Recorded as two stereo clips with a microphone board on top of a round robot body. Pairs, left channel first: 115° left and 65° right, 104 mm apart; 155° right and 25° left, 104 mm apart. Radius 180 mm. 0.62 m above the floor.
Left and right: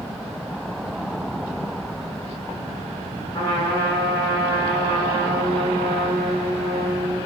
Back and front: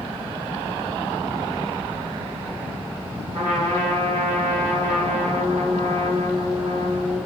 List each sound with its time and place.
3.3 s a trumpet: 60° left, 4 m